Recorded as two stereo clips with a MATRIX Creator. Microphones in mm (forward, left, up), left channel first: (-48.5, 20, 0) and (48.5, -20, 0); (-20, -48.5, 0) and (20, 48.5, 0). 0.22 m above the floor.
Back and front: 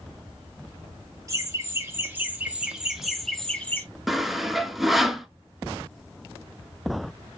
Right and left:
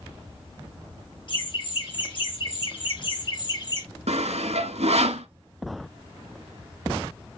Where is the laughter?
80° right, 3 m; by 3.9 s 140° right, 1.8 m.